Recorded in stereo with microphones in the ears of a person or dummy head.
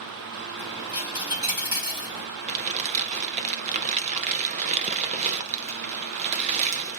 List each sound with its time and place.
0.6 s a dropped coin: 25° right (ahead or behind), 2.5 m
2.5 s crumpling: 35° right (ahead or behind), 0.8 m